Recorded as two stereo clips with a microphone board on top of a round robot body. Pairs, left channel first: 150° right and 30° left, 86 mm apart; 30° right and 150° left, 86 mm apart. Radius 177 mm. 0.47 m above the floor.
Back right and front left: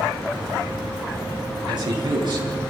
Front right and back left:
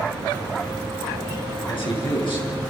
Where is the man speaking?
5° right, 8.5 m.